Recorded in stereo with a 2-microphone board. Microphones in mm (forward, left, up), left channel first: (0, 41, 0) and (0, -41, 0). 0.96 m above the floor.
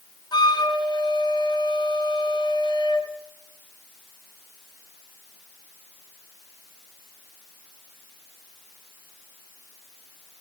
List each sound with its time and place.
0.3 s a flute: 60° left (ahead or behind), 2 m